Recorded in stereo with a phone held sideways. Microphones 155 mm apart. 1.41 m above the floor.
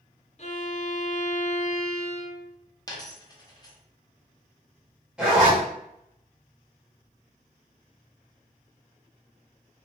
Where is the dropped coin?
25° left (ahead or behind), 0.7 m.